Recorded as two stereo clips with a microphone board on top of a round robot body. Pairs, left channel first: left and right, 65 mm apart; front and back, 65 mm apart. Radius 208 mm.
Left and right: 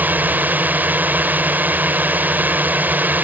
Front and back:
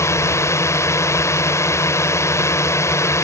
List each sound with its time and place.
0.0 s a drone: 30° right